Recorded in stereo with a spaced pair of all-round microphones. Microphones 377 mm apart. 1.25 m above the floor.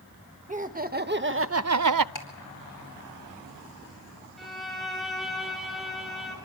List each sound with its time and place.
0.5 s laughter: 20° right (ahead or behind), 1.5 m; by 2.0 s 70° right (ahead or behind), 0.5 m
2.1 s ticking: 85° left, 4.5 m
4.4 s a violin: centre (ahead or behind), 3.5 m